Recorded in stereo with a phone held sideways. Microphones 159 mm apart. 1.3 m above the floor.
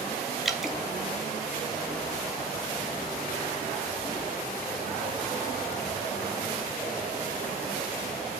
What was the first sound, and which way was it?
Dripping, centre (ahead or behind).